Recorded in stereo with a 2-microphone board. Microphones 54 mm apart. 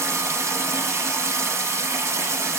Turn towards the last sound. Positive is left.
turn(degrees=-60)  # may be behind; listen again after turning